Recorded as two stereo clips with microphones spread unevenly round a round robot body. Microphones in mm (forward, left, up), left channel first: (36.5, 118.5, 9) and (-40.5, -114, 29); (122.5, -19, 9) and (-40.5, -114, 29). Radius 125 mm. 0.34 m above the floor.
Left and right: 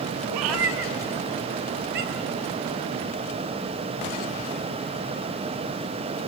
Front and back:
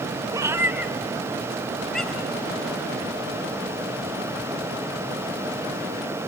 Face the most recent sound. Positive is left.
turn(degrees=-55)